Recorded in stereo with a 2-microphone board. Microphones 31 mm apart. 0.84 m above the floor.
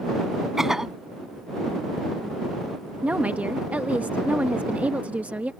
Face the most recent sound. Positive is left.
turn(degrees=-60)  # may be behind; listen again after turning